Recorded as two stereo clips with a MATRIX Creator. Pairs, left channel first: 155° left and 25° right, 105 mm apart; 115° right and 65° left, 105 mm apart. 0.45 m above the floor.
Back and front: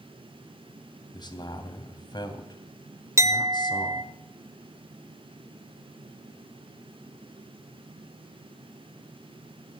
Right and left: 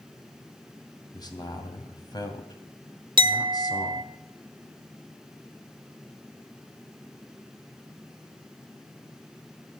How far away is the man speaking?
About 2.5 m.